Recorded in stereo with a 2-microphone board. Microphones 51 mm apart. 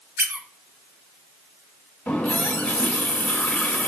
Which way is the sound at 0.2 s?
45° right (ahead or behind).